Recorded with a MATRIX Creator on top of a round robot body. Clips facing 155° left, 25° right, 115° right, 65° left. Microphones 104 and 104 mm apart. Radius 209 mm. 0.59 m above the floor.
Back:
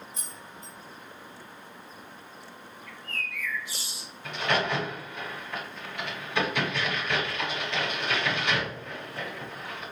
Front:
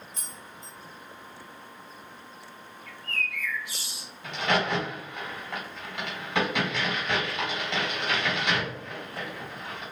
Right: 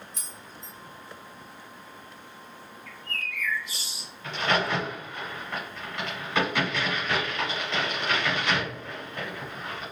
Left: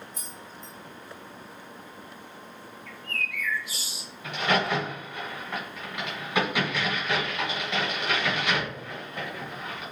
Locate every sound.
0.1 s keys jangling: 115° right, 1.1 m
2.9 s a bird: 20° right, 1.5 m
4.2 s a crack: 10° right, 1.8 m